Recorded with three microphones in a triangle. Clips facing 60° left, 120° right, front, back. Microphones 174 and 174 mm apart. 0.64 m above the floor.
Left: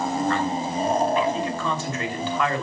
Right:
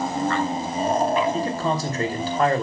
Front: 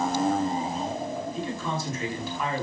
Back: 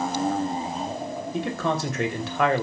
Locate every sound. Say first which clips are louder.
1.3 s a man speaking: right 3 dB, back 5 dB; 170° right, 3 m